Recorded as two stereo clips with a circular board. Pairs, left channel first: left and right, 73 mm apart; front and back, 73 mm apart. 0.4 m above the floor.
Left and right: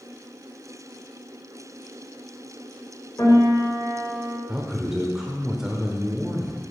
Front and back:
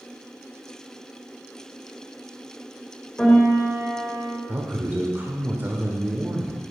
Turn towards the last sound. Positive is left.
turn(degrees=-165)